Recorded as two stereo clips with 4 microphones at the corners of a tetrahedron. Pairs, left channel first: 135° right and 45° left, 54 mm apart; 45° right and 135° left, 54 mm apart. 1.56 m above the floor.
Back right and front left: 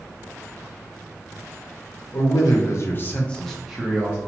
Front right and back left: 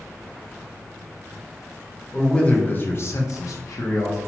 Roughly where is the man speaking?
Behind right.